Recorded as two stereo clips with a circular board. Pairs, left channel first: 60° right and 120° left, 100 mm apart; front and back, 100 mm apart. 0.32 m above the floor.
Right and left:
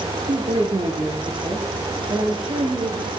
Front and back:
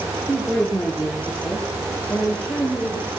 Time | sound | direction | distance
0.3 | a woman speaking | 85° left | 6.5 m